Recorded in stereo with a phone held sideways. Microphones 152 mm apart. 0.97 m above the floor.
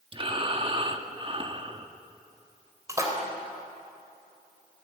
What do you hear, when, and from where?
0.1 s breathing: 35° right (ahead or behind), 1.5 m
2.9 s a splash: 20° right (ahead or behind), 4.5 m